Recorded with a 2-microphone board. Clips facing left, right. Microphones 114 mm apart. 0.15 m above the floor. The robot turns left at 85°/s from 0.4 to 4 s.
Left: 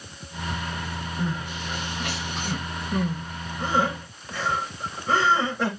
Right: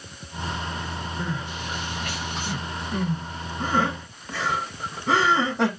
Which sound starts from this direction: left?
Crying, at 1.2 s.